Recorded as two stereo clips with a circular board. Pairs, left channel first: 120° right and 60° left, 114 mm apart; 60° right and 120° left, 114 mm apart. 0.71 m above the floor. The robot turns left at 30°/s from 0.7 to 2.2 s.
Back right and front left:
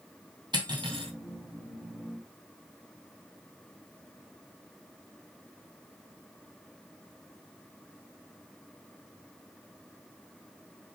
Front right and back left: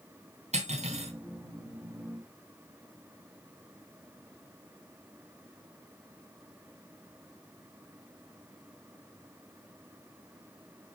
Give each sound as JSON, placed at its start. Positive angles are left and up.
{"t": 0.5, "sound": "cutlery clinking", "azimuth_deg": 115, "distance_m": 2.5}